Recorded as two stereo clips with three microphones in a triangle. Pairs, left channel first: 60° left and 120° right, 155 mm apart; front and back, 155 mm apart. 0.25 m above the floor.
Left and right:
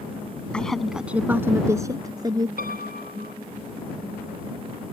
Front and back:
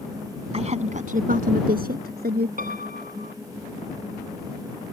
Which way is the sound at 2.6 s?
145° right.